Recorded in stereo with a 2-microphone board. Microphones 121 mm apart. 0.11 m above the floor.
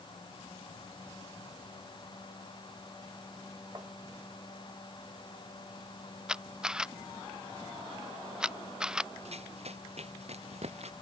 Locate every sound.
3.8 s tapping: 30° right (ahead or behind)
6.3 s a camera shutter: 5° right (ahead or behind)
9.2 s running footsteps: 60° right (ahead or behind); by 10.9 s 65° right (ahead or behind)